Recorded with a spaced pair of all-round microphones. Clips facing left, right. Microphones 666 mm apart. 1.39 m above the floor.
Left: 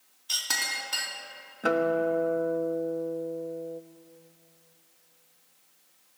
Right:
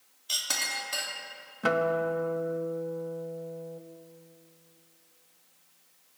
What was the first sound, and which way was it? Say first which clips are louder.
A clink: right 1 dB; 5° right (ahead or behind).